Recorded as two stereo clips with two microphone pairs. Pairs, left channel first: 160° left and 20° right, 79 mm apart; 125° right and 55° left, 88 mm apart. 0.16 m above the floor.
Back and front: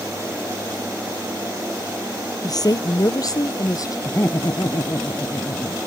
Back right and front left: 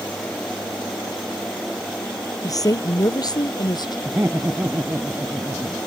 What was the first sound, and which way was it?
A woman speaking, 170° right.